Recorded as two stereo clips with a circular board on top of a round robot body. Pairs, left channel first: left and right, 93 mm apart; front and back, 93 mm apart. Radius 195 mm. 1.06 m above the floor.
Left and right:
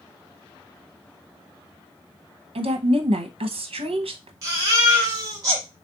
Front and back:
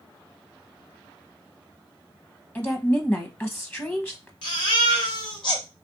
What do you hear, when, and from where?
2.5 s a woman speaking: 70° right, 0.8 m
4.4 s a baby crying: 35° right, 1.0 m